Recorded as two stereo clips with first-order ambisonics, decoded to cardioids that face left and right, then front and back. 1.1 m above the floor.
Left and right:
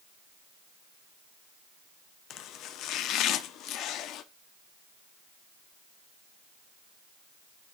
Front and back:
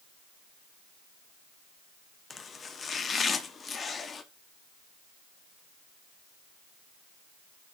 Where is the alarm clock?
I don't hear an alarm clock.